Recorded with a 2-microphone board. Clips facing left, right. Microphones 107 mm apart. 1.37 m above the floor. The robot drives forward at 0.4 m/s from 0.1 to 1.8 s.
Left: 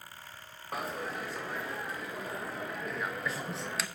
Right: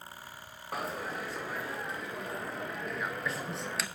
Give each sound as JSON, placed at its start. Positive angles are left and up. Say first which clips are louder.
{"t": 0.7, "sound": "a dropped coin", "louder": "even", "side_deg": 0, "distance_m": 0.6}